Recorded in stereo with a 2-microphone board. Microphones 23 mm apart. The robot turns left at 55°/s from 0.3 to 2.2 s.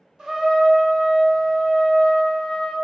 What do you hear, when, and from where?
0.2 s a trumpet: 155° right, 0.8 m; by 2.8 s 100° left, 0.8 m